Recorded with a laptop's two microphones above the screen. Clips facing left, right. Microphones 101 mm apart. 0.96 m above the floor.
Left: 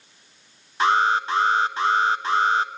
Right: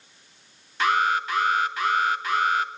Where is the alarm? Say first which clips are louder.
Left 3 dB; 30° left (ahead or behind), 1.4 m.